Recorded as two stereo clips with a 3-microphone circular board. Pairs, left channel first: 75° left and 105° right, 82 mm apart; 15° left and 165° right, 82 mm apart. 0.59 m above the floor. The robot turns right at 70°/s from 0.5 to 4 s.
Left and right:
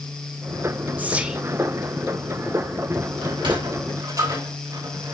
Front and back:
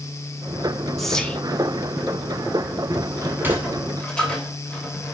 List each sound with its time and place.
1.0 s whispering: 70° right, 1.2 m; by 1.4 s 40° right, 1.2 m
3.2 s a sliding door: 120° right, 2.5 m; by 5.2 s 60° right, 2.5 m